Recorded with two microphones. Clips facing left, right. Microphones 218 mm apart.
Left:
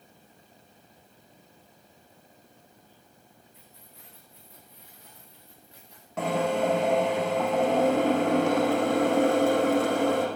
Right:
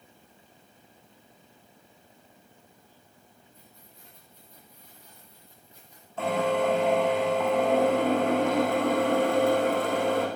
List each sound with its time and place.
3.5 s keys jangling: 80° left, 7 m; by 6.1 s 75° left (ahead or behind), 11 m
6.2 s a drill: 75° left (ahead or behind), 6.5 m